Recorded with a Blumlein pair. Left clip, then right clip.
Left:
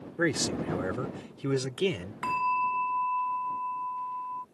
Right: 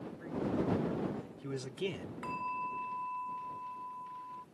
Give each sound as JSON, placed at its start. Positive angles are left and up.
{"t": 0.2, "sound": "a man speaking", "azimuth_deg": 40}
{"t": 2.2, "sound": "a bell", "azimuth_deg": 30}